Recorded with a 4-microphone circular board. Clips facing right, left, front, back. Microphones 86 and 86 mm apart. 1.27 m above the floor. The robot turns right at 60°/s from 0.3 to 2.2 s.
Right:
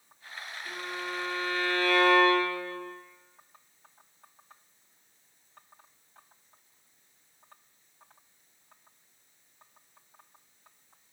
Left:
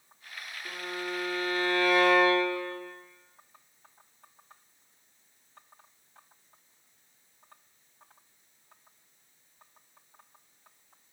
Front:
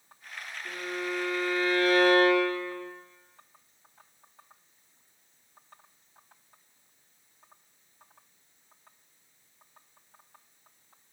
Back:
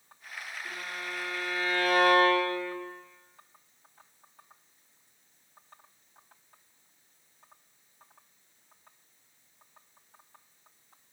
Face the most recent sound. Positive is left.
turn(degrees=170)